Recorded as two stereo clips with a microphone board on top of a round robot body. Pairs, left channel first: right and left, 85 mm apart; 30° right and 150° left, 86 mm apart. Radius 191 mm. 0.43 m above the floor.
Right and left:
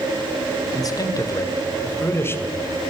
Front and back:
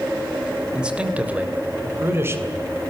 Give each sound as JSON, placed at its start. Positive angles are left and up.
{"t": 0.8, "sound": "a man speaking", "azimuth_deg": -130, "distance_m": 2.5}